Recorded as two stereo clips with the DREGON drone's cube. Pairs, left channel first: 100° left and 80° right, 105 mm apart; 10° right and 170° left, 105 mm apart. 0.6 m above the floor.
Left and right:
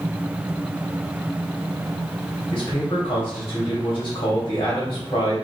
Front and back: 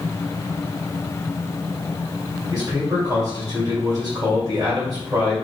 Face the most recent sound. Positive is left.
turn(degrees=135)